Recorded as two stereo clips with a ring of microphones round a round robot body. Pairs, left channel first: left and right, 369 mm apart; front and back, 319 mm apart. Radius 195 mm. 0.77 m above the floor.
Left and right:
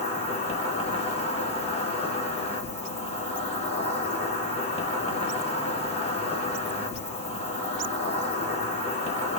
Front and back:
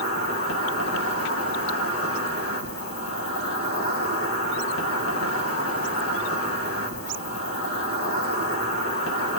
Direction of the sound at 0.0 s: 20° left.